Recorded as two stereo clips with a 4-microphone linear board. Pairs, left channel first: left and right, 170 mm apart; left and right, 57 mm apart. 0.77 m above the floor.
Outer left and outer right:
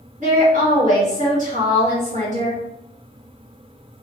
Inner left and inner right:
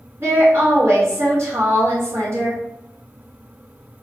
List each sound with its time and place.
0.2 s a woman speaking: 50° right (ahead or behind), 1.6 m